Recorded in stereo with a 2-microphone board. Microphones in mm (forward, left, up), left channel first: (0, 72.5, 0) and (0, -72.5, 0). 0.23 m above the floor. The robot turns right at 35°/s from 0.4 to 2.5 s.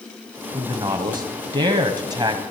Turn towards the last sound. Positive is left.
turn(degrees=-60)